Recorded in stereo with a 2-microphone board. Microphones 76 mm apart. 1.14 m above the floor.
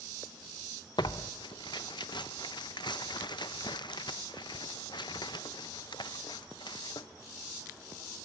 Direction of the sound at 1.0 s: 75° left (ahead or behind).